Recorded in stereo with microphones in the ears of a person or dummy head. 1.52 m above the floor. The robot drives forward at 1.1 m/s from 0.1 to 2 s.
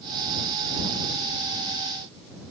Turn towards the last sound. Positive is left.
No sound to turn to.